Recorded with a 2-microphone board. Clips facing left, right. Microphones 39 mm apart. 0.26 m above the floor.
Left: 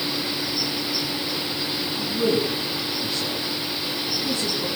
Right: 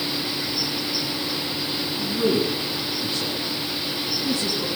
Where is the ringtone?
I don't hear a ringtone.